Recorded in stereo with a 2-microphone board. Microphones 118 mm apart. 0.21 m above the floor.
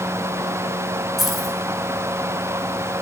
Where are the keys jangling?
Centre (ahead or behind), 1.5 m.